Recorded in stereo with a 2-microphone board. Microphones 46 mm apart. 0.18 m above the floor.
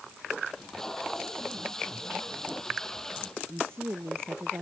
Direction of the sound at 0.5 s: 10° left (ahead or behind).